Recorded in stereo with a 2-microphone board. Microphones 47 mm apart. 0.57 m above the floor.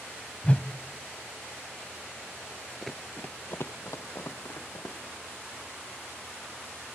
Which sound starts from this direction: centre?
Running footsteps, at 2.8 s.